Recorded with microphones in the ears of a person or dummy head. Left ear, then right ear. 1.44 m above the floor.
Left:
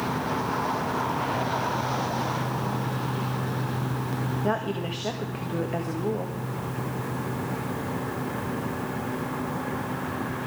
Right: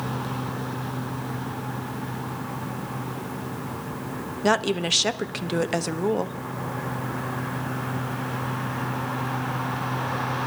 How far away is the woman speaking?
About 0.8 m.